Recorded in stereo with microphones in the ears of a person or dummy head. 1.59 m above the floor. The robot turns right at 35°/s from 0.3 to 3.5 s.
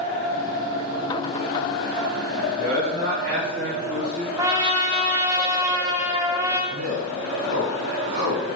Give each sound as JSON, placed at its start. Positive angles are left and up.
{"t": 2.3, "sound": "a man speaking", "azimuth_deg": -130, "distance_m": 1.3}
{"t": 4.4, "sound": "a trumpet", "side_deg": -15, "distance_m": 0.5}
{"t": 6.7, "sound": "a man speaking", "side_deg": -55, "distance_m": 1.6}